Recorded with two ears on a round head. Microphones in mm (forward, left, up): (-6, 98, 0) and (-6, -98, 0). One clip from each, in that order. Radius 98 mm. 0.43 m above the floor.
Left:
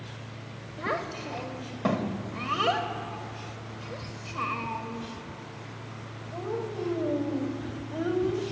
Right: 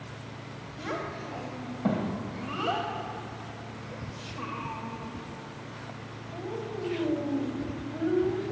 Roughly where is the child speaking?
Left.